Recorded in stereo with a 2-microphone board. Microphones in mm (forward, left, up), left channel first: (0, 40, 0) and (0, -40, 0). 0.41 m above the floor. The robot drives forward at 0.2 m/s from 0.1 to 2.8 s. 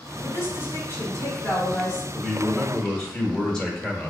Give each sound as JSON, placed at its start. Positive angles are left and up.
{"t": 0.2, "sound": "a woman speaking", "side_deg": 30, "distance_m": 1.0}
{"t": 2.1, "sound": "a man speaking", "side_deg": 10, "distance_m": 0.8}